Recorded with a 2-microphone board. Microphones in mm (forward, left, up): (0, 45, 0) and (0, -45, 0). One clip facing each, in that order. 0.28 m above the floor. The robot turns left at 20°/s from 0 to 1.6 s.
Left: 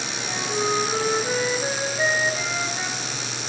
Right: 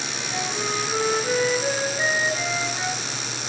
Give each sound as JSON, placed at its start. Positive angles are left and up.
{"t": 0.3, "sound": "a flute", "side_deg": 30, "distance_m": 3.0}